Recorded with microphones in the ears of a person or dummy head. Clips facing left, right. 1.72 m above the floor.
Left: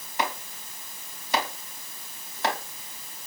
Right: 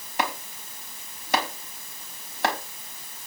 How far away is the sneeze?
I don't hear a sneeze.